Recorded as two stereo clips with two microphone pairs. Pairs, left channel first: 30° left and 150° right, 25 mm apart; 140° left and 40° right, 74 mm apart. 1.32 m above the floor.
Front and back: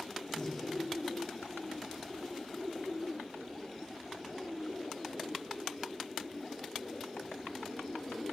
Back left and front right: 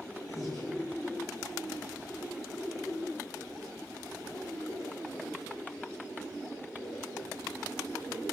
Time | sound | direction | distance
0.3 | breathing | 105° left | 5 m